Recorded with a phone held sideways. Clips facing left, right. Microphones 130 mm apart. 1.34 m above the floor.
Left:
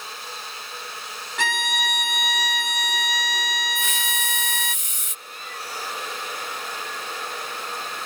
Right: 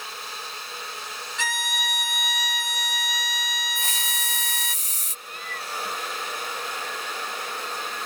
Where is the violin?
60° left (ahead or behind).